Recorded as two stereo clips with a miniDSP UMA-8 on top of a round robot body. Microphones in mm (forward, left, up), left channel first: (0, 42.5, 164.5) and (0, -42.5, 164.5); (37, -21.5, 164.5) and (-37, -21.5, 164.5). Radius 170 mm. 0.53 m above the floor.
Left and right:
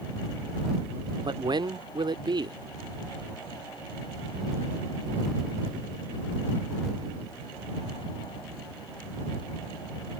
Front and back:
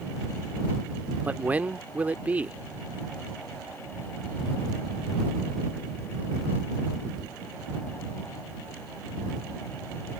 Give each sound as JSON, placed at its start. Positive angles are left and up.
{"t": 1.2, "sound": "a man speaking", "azimuth_deg": -110}